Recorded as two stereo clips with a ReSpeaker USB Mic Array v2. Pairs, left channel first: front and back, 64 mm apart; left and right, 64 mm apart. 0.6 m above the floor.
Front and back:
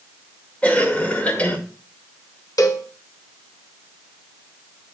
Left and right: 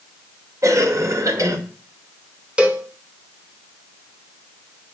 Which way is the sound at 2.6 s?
15° right.